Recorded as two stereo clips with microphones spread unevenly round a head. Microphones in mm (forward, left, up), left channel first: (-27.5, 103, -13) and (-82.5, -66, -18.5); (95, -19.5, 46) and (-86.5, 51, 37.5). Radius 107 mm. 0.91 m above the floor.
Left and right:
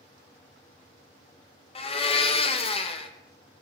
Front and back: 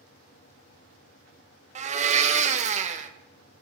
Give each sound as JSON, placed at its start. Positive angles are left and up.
{"t": 1.8, "sound": "a blender", "azimuth_deg": 120, "distance_m": 0.5}